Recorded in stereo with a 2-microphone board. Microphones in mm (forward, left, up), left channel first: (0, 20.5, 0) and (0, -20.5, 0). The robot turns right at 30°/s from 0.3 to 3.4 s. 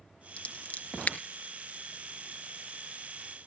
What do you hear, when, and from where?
0.4 s scissors: 35° left (ahead or behind), 1.5 m